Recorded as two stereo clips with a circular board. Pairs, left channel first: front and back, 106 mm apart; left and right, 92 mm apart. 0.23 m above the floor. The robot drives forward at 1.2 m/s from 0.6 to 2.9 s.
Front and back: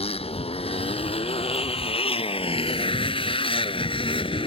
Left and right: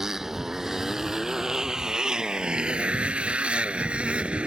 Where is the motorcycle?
5° right; by 4.5 s 15° right.